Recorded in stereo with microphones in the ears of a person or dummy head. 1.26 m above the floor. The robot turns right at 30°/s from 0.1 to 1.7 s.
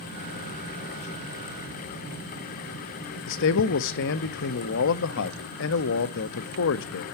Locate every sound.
3.3 s a man speaking: 60° left (ahead or behind), 0.8 m